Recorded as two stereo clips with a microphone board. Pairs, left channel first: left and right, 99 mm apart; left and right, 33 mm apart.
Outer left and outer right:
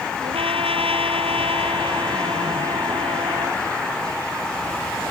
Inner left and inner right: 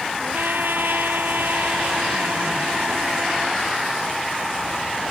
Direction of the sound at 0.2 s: 65° right (ahead or behind).